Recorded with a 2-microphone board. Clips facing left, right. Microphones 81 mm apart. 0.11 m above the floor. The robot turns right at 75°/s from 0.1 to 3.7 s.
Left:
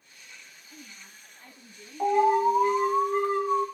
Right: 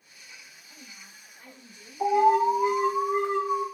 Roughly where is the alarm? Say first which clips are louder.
Right 1 dB; left.